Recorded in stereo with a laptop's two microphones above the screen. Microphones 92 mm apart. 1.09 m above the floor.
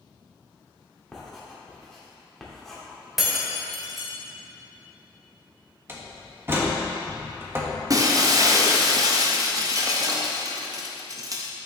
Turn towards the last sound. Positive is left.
turn(degrees=-40)  # may be behind; listen again after turning